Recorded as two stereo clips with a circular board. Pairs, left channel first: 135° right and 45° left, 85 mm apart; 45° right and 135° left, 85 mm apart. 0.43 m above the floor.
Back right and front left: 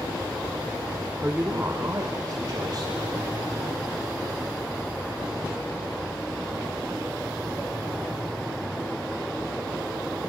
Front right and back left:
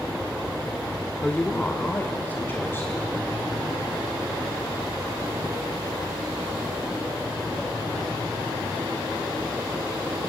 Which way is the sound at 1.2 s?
15° left.